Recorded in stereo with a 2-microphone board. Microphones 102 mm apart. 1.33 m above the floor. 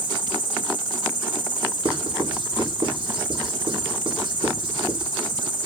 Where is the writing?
60° right (ahead or behind), 4.5 m.